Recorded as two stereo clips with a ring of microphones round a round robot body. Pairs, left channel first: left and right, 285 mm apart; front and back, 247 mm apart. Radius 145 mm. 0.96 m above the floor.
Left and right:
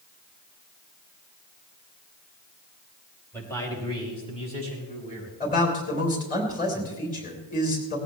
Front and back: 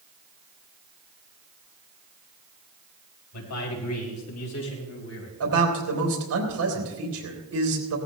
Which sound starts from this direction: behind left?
A man speaking, at 5.4 s.